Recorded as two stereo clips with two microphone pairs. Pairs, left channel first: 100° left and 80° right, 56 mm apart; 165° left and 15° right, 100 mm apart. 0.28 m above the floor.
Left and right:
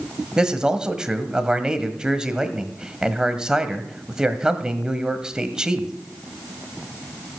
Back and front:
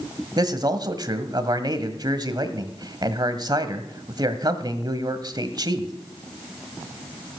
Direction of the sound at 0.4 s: 10° right.